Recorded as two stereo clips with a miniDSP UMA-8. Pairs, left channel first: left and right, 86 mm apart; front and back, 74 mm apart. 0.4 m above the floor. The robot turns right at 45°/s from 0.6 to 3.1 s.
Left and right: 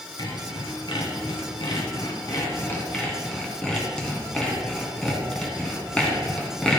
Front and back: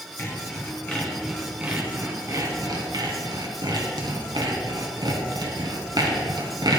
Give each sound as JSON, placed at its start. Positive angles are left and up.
{"t": 0.2, "sound": "sawing", "azimuth_deg": 60, "distance_m": 2.0}